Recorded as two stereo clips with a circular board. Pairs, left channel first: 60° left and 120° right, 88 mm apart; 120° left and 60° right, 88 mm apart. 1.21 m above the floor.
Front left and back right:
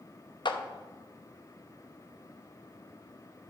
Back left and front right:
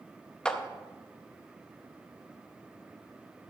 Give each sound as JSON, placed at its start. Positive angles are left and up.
{"t": 0.5, "sound": "a clap", "azimuth_deg": 40, "distance_m": 0.8}